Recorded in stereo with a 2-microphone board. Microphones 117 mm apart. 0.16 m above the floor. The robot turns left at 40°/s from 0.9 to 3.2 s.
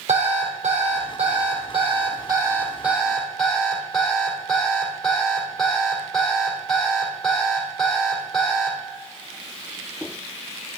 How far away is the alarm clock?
About 3 m.